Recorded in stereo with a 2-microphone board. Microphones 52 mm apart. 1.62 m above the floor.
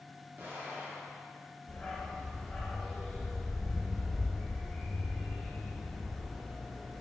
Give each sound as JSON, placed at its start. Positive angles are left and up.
{"t": 0.4, "sound": "an explosion", "side_deg": -40, "distance_m": 1.4}
{"t": 1.7, "sound": "a dog barking", "side_deg": 15, "distance_m": 1.8}